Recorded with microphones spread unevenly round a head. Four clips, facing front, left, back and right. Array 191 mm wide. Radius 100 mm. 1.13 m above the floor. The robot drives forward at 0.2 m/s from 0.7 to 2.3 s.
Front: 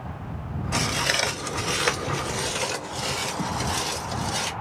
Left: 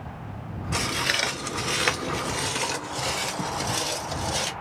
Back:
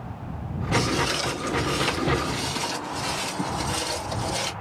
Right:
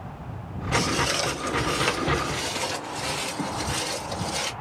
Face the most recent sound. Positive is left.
turn(degrees=115)